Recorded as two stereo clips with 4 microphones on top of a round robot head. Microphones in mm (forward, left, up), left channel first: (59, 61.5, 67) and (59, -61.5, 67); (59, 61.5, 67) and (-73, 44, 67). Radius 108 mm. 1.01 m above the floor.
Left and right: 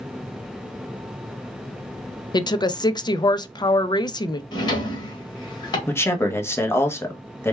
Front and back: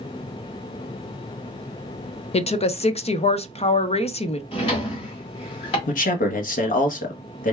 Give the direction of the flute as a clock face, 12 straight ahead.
I don't hear a flute.